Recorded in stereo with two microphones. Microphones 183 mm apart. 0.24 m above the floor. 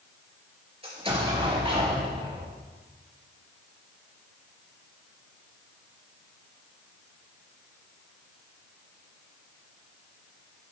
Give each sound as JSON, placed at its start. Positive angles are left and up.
{"t": 0.8, "sound": "an explosion", "side_deg": -30, "distance_m": 4.0}